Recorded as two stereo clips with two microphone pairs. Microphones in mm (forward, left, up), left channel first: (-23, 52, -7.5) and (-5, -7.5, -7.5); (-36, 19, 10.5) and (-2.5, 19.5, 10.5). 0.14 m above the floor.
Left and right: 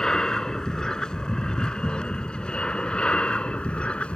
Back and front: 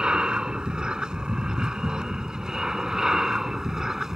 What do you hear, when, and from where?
0.0 s an aircraft: 35° left; by 4.2 s 60° left